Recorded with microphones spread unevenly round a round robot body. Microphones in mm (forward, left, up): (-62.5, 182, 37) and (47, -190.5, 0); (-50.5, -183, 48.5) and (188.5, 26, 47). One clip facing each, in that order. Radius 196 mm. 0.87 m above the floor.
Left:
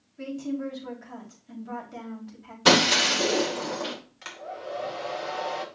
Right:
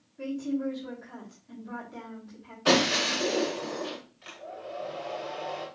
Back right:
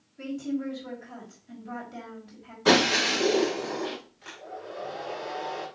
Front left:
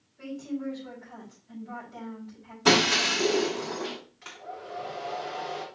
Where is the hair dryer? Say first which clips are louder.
Left 3 dB, back right 2 dB; 115° left, 2.5 m.